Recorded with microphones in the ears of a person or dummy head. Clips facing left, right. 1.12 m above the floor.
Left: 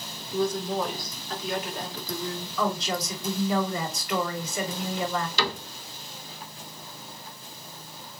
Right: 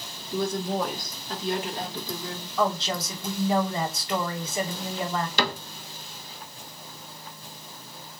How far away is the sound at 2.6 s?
About 2 m.